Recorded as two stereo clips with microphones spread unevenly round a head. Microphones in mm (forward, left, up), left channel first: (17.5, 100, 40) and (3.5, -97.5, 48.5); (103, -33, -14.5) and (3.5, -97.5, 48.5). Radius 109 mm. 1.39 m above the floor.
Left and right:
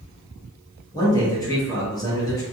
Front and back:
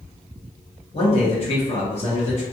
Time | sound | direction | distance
0.9 | a man speaking | 15° left | 1.4 m